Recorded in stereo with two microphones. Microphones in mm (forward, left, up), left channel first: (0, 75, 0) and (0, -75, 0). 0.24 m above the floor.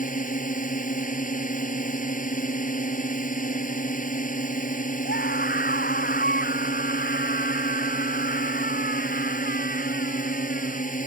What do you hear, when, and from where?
0.0 s a drone: 60° left (ahead or behind)
5.0 s a scream: 85° left